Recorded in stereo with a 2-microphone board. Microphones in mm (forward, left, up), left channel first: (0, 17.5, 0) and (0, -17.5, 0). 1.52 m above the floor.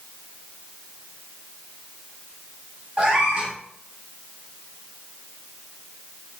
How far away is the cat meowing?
About 0.8 m.